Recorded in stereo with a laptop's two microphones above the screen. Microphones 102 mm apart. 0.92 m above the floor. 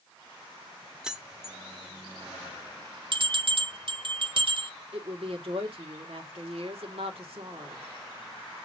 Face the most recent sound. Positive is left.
turn(degrees=-70)  # may be behind; listen again after turning